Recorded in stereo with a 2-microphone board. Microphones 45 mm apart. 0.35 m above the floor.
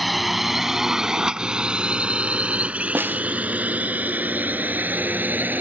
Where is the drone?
Centre (ahead or behind); by 5.6 s 45° right (ahead or behind).